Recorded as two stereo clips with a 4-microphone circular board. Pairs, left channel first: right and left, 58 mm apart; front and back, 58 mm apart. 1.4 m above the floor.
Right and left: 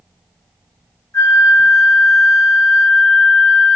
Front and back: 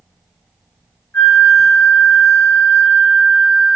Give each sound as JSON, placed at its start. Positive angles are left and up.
{"t": 1.1, "sound": "a flute", "azimuth_deg": -55, "distance_m": 0.9}